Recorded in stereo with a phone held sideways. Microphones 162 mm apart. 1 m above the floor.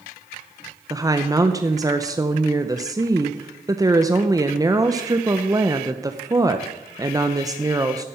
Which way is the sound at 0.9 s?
20° right (ahead or behind).